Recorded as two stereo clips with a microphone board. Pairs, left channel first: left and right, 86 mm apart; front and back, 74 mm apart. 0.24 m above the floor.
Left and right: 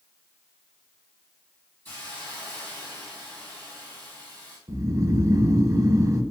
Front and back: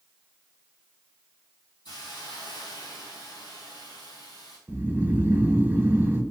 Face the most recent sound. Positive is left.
turn(degrees=-125)